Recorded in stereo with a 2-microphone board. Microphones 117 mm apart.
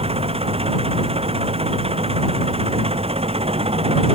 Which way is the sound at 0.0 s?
55° right (ahead or behind).